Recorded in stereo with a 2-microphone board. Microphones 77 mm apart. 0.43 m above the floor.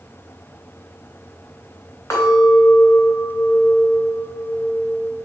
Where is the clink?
40° left (ahead or behind), 2 m.